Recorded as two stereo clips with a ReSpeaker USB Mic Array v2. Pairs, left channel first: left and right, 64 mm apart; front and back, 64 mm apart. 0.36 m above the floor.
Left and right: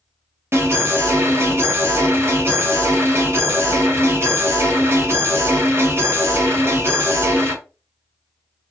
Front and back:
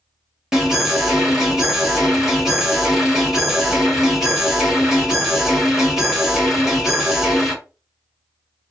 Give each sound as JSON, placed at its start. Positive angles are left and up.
{"t": 0.5, "sound": "an alarm", "azimuth_deg": -100, "distance_m": 2.0}